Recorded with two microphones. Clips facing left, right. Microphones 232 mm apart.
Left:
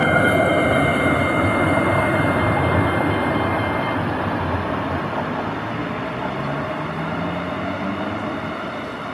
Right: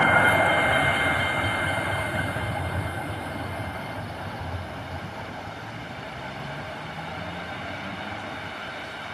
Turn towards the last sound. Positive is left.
turn(degrees=65)  # may be behind; listen again after turning